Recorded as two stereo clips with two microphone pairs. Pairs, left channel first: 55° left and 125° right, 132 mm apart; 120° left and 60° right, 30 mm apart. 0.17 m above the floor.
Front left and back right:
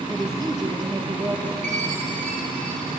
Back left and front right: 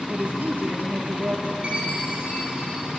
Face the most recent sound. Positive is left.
turn(degrees=-110)